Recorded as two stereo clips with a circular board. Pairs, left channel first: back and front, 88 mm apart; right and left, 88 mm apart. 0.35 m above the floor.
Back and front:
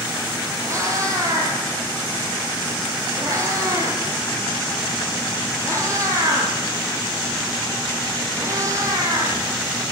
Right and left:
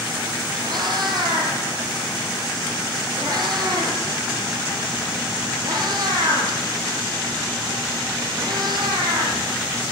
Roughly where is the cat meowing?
Ahead left.